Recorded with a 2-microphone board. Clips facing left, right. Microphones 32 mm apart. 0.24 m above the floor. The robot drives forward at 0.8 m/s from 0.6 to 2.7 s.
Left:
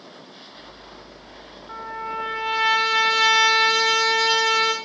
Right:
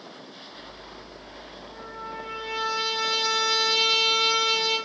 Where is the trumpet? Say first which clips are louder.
Left 8 dB; 85° left, 6 m; by 4.7 s 75° left (ahead or behind), 6.5 m.